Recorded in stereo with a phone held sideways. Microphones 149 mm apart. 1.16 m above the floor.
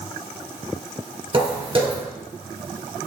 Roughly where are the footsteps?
Right.